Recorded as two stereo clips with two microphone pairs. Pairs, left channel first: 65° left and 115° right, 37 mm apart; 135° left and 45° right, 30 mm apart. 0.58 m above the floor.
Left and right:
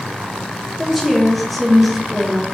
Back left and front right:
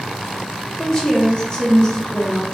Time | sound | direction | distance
0.8 | a woman speaking | 145° left | 1.0 m